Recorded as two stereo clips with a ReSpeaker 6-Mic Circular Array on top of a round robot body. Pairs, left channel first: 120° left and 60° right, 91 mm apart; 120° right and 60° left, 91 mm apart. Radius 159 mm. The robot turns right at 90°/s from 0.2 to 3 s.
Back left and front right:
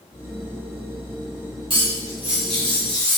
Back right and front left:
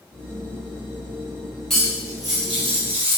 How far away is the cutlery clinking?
About 1.6 m.